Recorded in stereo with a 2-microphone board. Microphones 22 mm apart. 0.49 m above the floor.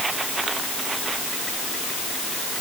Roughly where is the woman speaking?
No woman speaking in this recording.